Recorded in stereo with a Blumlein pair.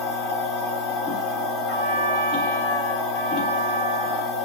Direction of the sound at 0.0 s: 20° left.